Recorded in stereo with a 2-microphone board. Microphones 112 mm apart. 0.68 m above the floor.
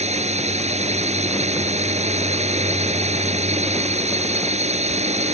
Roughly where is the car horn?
No car horn in this recording.